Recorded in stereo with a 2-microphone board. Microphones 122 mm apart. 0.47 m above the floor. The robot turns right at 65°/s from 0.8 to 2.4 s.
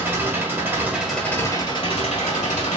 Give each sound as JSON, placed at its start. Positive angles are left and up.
{"t": 0.0, "sound": "an engine running", "azimuth_deg": -20, "distance_m": 1.3}